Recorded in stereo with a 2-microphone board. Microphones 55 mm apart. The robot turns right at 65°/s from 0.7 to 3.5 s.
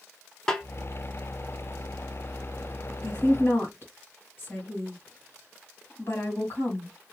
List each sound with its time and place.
0.5 s a snare drum: 10° left (ahead or behind), 0.8 m
3.0 s a woman speaking: 55° left (ahead or behind), 1.7 m; by 6.9 s 45° left (ahead or behind), 1.7 m